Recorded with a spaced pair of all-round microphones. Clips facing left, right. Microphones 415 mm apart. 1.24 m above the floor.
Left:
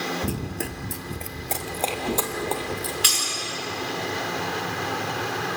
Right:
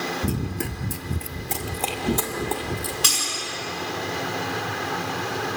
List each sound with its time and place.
0.2 s running footsteps: 10° right (ahead or behind), 1.3 m; by 2.9 s 30° right (ahead or behind), 2.5 m
3.0 s breaking glass: 65° right (ahead or behind), 6.5 m